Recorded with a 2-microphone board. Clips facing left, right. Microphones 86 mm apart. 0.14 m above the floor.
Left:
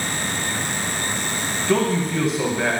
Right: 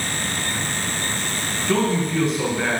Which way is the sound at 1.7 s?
5° left (ahead or behind).